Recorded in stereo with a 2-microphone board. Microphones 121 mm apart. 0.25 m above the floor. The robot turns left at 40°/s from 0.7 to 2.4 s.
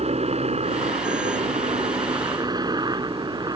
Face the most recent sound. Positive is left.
turn(degrees=-140)